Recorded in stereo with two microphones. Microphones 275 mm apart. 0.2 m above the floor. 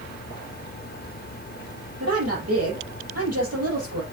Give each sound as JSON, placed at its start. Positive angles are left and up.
{"t": 2.0, "sound": "a woman speaking", "side_deg": -65, "distance_m": 6.0}